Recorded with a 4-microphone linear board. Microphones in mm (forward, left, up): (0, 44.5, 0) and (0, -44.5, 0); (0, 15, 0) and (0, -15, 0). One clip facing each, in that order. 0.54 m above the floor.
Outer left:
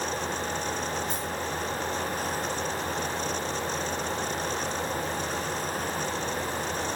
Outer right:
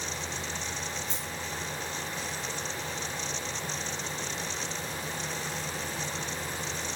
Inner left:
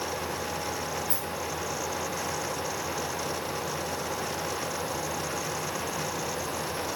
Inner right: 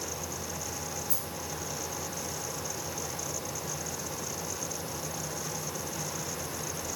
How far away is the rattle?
About 5.5 m.